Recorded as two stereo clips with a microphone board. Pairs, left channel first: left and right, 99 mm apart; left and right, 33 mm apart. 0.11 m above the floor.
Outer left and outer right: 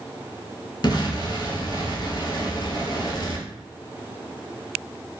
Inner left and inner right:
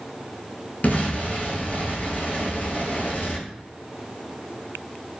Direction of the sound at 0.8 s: 50° left (ahead or behind).